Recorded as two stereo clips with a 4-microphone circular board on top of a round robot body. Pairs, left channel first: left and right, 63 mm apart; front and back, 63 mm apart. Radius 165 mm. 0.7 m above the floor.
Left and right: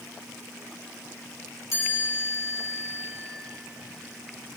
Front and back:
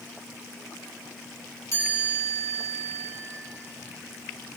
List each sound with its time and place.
1.7 s a chime: 45° left, 3.5 m